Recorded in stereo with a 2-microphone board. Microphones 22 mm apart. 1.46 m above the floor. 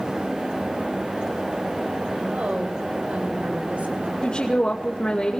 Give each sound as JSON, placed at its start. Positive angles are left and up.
{"t": 2.3, "sound": "a woman speaking", "side_deg": -75, "distance_m": 5.5}
{"t": 4.2, "sound": "a woman speaking", "side_deg": 50, "distance_m": 2.5}